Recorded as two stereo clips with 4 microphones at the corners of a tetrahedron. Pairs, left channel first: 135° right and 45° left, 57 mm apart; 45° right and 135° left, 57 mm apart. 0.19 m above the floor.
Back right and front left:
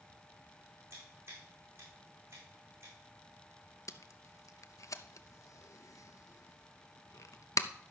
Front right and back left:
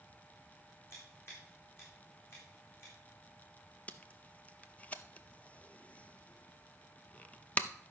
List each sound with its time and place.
0.9 s scissors: straight ahead, 6 m
3.9 s tape being pulled: 110° right, 0.6 m